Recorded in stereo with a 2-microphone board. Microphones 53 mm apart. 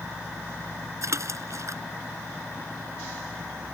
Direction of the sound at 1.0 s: 65° right (ahead or behind).